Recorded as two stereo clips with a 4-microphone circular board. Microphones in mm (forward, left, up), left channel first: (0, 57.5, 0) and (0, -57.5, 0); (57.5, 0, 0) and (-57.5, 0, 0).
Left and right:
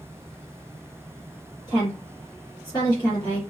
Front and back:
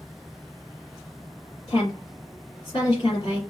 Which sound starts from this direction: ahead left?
A woman speaking, at 1.7 s.